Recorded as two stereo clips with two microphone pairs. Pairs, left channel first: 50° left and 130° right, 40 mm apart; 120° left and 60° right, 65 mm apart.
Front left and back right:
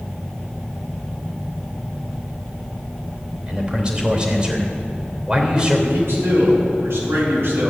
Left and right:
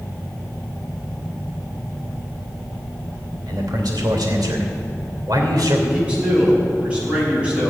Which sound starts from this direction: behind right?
A man speaking, at 5.9 s.